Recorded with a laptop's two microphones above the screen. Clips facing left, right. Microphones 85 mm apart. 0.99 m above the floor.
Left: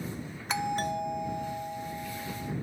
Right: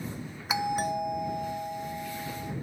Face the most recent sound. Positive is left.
turn(degrees=-10)  # may be behind; listen again after turning